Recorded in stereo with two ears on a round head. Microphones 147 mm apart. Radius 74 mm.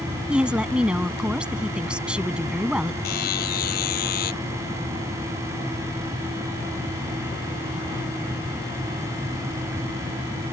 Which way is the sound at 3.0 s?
65° left (ahead or behind).